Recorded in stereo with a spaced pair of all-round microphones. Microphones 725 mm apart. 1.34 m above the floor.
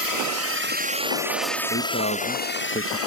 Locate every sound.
0.0 s a drone: 30° right (ahead or behind); by 3.1 s 20° left (ahead or behind)
1.7 s a man speaking: 15° left (ahead or behind)